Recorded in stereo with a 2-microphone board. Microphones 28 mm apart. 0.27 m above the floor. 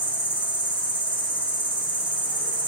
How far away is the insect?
About 0.7 m.